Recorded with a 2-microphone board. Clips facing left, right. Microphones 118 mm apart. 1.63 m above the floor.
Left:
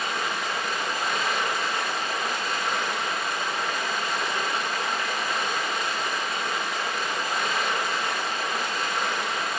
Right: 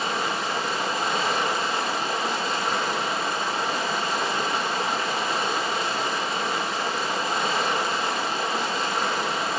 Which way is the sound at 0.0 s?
30° right (ahead or behind).